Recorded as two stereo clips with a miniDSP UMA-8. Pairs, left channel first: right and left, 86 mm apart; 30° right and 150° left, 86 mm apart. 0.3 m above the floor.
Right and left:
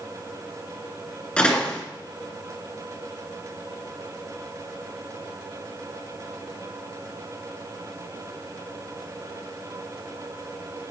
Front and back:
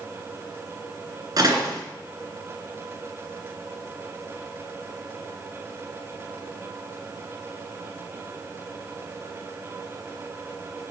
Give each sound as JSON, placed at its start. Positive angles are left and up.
{"t": 1.4, "sound": "a door slam", "azimuth_deg": -170, "distance_m": 2.5}